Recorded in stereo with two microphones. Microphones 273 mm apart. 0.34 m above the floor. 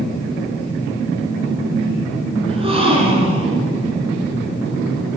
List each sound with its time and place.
2.5 s a gasp: 20° right (ahead or behind), 1.8 m